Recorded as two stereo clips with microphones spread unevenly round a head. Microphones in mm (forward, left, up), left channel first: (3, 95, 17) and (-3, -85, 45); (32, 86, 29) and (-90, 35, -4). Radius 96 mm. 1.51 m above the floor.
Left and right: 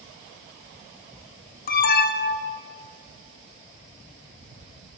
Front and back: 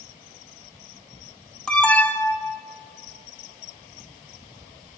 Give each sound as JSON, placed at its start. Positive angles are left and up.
{"t": 1.7, "sound": "an alarm", "azimuth_deg": 115, "distance_m": 1.8}